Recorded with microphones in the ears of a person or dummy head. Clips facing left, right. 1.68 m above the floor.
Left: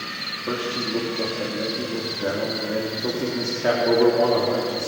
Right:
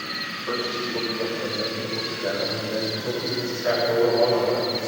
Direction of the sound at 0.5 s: 45° left (ahead or behind).